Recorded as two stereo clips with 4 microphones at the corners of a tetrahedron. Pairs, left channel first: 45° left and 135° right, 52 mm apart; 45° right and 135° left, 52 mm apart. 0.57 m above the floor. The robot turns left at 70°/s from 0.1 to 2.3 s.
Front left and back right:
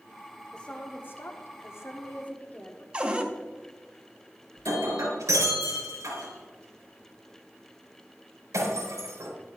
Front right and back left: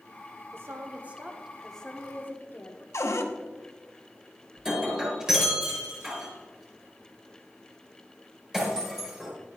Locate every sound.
0.5 s a woman speaking: 115° left, 1.2 m; by 2.8 s 5° right, 1.2 m
2.9 s a cupboard door: 65° right, 1.1 m
4.6 s breaking glass: 145° right, 4.5 m